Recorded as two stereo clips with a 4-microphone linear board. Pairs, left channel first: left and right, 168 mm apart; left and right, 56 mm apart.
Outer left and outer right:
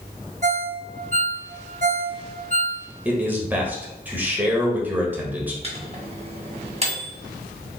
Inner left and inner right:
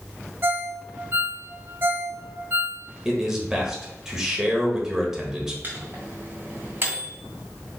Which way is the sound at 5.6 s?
35° right (ahead or behind).